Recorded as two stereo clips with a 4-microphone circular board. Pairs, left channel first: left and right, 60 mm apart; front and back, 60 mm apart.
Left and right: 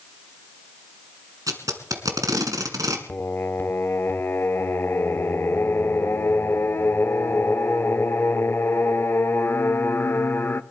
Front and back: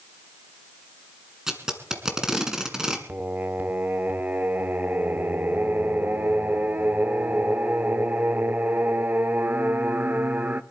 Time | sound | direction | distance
1.5 | tape being pulled | 100° right | 1.6 m
3.1 | singing | 130° left | 0.5 m